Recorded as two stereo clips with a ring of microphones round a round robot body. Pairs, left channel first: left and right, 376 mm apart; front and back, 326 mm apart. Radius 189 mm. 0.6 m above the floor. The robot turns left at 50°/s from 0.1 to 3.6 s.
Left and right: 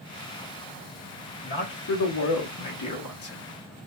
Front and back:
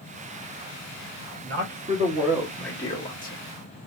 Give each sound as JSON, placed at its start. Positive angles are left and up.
{"t": 1.4, "sound": "a man speaking", "azimuth_deg": 145, "distance_m": 1.1}